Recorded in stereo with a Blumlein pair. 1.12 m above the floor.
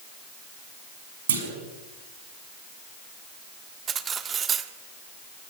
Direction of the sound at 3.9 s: 20° right.